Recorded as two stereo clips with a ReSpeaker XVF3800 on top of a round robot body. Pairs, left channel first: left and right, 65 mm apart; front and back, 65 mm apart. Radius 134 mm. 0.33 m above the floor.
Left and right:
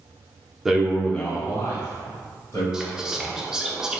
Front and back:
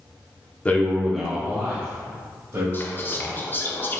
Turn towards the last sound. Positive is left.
turn(degrees=-15)